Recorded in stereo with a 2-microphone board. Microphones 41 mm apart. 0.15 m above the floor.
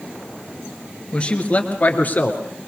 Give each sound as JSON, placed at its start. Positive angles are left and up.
{"t": 1.1, "sound": "a man speaking", "side_deg": 25, "distance_m": 2.5}